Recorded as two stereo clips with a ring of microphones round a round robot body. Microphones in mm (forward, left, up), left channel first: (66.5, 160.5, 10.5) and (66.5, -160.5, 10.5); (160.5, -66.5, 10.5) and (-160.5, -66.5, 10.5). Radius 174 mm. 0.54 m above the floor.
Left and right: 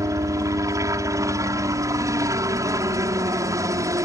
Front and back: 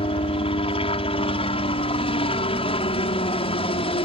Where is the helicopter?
30° right.